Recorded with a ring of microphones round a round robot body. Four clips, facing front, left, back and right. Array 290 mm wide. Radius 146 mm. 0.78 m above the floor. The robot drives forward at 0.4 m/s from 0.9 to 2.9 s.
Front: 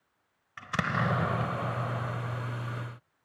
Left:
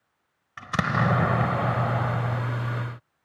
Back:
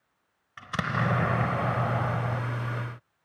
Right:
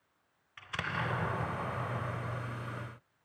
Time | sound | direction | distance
0.6 | an explosion | 90° left | 0.8 m